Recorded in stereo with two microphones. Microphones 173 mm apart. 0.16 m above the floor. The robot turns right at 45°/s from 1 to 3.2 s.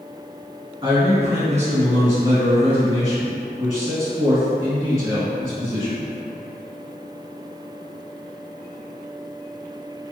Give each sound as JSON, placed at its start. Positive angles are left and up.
{"t": 0.8, "sound": "a man speaking", "azimuth_deg": -125, "distance_m": 1.8}